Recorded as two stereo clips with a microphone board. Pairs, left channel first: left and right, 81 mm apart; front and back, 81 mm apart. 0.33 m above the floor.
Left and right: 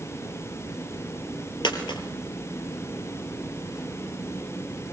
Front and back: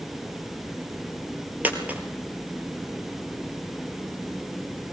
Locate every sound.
1.6 s a dropped coin: 110° left, 3 m